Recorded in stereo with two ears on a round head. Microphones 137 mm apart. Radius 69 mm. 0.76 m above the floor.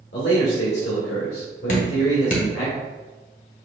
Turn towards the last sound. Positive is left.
turn(degrees=50)  # may be behind; listen again after turning